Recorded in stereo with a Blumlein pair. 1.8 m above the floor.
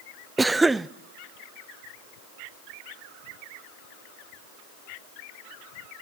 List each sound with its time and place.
0.4 s a cough: 10° right, 0.5 m